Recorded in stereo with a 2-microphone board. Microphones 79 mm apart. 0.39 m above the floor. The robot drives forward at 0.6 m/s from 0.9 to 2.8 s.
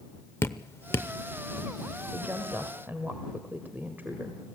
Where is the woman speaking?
20° right (ahead or behind), 1.8 m; by 4.4 s 25° right (ahead or behind), 1.5 m.